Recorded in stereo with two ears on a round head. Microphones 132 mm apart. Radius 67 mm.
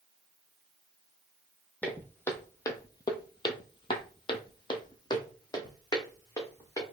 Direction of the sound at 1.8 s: 10° left (ahead or behind).